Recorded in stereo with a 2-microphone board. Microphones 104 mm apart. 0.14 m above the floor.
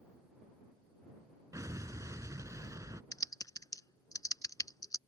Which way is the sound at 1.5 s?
30° right (ahead or behind).